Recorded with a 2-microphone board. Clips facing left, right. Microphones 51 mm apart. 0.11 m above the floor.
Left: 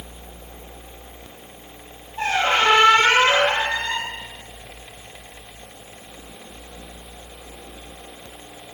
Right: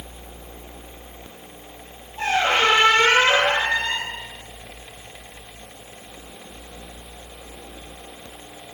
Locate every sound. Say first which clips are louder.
2.2 s a squeak: even; 30° left (ahead or behind), 1.8 m